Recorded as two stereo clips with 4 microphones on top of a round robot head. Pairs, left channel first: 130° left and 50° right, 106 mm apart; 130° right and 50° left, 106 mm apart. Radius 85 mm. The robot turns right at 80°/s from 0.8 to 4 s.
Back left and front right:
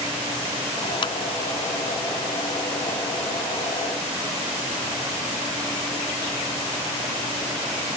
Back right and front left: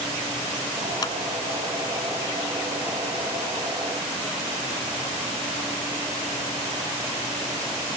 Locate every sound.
1.0 s a clap: 170° left; by 1.1 s 175° right